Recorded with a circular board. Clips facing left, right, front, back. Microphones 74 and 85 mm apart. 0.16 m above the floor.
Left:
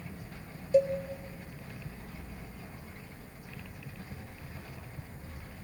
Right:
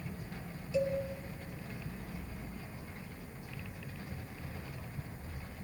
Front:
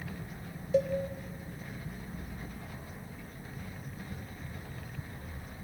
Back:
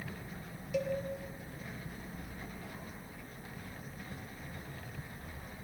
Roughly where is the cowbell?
Ahead left.